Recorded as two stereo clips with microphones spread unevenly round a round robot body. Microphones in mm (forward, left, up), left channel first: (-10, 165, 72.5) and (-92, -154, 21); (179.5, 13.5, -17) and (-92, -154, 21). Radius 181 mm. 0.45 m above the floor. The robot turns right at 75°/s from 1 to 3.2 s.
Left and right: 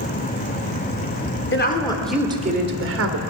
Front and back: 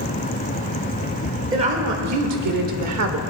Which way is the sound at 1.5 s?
130° left.